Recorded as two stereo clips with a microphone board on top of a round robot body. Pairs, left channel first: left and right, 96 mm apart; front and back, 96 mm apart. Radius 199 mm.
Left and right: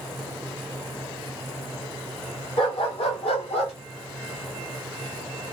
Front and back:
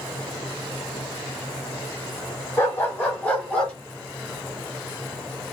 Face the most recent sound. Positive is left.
turn(degrees=80)